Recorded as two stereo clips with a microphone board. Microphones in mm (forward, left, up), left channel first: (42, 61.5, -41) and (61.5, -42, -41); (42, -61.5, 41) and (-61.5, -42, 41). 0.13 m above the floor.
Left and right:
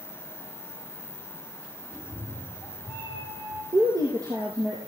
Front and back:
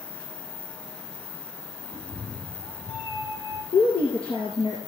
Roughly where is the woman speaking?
Ahead right.